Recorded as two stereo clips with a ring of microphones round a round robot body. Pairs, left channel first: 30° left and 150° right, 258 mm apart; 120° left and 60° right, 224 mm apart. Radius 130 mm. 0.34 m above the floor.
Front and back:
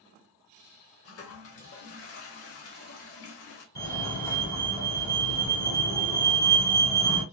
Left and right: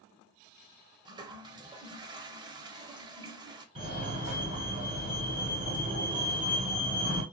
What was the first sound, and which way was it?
A toilet flushing, 10° left.